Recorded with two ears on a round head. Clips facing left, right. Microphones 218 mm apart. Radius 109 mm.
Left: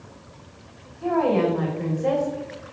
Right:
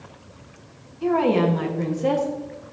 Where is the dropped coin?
No dropped coin in this recording.